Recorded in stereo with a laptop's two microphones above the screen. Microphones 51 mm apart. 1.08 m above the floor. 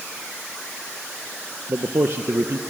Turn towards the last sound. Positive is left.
turn(degrees=-55)  # may be behind; listen again after turning